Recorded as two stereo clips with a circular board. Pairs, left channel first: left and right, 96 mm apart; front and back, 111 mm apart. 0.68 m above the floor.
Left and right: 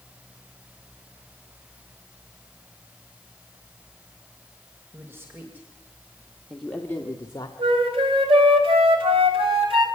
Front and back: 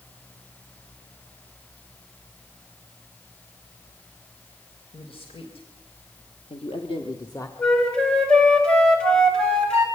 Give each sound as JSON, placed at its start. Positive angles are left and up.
{"t": 4.9, "sound": "a man speaking", "azimuth_deg": -25, "distance_m": 3.5}
{"t": 7.6, "sound": "a flute", "azimuth_deg": -80, "distance_m": 4.0}